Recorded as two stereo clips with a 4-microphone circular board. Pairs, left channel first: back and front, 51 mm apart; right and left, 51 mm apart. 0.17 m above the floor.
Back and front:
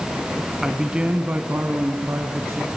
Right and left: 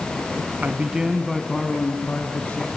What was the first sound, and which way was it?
A man speaking, 80° left.